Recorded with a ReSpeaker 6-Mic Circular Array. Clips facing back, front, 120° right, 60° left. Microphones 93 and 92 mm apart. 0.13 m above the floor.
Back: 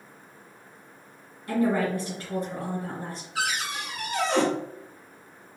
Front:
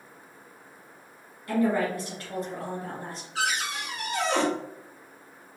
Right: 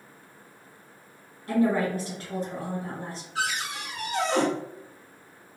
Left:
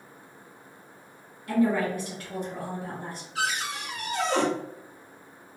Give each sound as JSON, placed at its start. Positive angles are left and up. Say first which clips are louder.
{"t": 1.5, "sound": "a woman speaking", "louder": "back 1 dB, even", "azimuth_deg": -135, "distance_m": 2.0}
{"t": 3.4, "sound": "a cupboard door", "louder": "front 1 dB, left 1 dB", "azimuth_deg": -100, "distance_m": 1.7}